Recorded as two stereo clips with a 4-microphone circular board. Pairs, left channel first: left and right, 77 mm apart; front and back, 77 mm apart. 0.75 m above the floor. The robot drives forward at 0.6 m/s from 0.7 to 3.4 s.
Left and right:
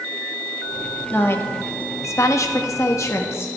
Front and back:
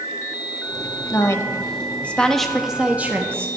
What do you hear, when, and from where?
1.1 s a woman speaking: 35° left, 1.2 m; by 3.5 s 130° left, 1.1 m